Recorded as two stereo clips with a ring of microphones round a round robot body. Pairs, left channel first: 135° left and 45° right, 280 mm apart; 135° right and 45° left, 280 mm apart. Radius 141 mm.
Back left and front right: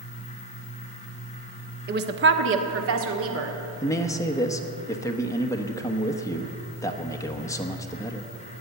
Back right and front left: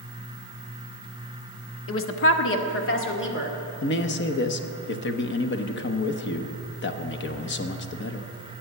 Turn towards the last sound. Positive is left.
turn(degrees=-150)